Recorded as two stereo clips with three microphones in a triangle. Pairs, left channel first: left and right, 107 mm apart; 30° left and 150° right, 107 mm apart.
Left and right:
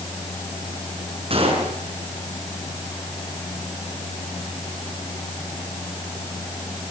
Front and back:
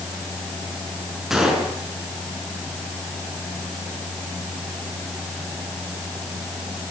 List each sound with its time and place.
1.3 s a gunshot: 65° right, 5.5 m